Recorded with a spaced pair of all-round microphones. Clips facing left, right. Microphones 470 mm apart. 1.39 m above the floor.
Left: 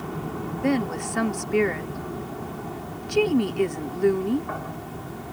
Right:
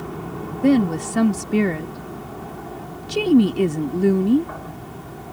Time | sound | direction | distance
0.6 | a woman speaking | 55° right (ahead or behind) | ?